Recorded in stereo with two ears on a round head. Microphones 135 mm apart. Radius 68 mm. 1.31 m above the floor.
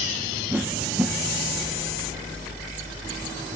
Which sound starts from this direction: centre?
A whoosh, at 0.5 s.